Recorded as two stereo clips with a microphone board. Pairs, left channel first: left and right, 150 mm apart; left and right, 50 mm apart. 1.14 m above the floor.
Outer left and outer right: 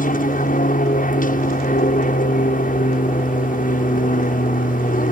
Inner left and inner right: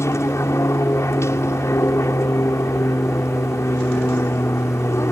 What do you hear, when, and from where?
0.0 s an aircraft: 65° left (ahead or behind)